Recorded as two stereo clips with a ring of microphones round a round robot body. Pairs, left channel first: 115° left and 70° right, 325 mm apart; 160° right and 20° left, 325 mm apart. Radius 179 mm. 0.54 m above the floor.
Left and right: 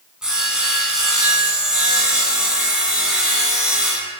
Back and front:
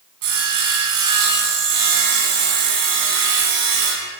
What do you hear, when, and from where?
0.2 s sawing: 20° left, 1.8 m